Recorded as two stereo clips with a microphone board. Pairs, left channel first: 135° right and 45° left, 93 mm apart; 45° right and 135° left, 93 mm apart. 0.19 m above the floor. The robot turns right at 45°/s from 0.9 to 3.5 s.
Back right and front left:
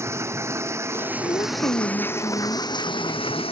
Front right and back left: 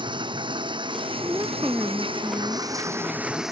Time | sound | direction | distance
0.0 | running water | 105° left | ?
1.2 | a woman speaking | 165° right | ?